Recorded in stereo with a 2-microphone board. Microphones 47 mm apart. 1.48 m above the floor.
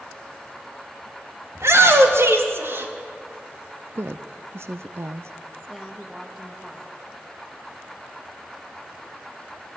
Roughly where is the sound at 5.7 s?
Centre.